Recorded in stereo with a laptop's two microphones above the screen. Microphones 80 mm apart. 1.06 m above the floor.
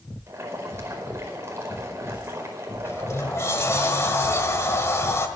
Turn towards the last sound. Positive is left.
turn(degrees=40)  # may be behind; listen again after turning